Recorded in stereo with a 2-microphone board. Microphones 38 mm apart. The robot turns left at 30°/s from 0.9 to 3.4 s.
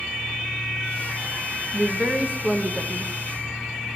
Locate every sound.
1.7 s a woman speaking: 95° right, 1.1 m; by 3.1 s 135° right, 1.1 m